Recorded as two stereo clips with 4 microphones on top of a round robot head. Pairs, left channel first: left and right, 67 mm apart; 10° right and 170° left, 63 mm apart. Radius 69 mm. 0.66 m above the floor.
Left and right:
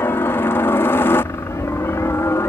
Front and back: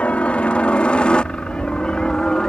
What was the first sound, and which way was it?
A helicopter, 50° left.